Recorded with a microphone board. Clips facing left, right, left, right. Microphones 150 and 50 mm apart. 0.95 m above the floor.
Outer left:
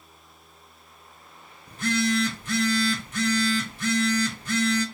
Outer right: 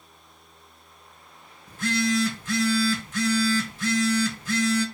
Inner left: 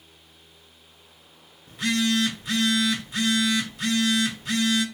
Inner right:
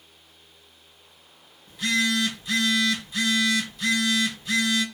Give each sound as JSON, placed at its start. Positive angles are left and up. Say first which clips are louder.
{"t": 1.7, "sound": "a phone buzzing", "louder": "even, even", "side_deg": 60, "distance_m": 1.4}